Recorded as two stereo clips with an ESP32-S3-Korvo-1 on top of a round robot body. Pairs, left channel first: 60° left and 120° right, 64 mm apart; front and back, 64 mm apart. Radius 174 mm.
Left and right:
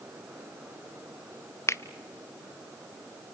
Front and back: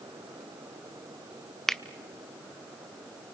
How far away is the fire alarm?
No fire alarm in this recording.